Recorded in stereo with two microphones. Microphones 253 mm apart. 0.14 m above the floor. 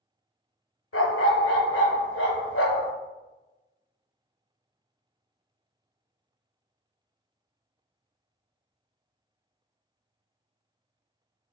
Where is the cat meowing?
I don't hear a cat meowing.